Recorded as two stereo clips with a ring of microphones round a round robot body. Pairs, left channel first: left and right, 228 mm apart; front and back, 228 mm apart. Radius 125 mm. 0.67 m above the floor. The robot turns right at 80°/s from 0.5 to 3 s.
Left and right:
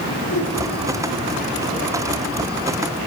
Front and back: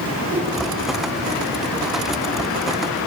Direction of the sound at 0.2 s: 100° left.